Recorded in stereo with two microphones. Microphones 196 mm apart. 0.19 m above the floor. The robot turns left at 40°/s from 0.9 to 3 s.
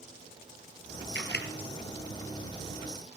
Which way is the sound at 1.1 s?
70° left (ahead or behind).